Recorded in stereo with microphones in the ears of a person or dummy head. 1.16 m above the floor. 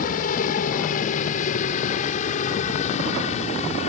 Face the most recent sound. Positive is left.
turn(degrees=35)  # may be behind; listen again after turning